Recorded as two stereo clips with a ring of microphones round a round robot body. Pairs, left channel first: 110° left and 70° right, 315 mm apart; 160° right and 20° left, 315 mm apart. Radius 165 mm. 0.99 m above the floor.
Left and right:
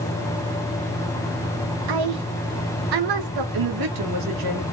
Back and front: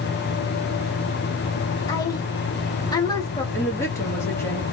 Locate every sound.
1.9 s a woman speaking: 80° right, 1.1 m
3.5 s a woman speaking: 75° right, 1.9 m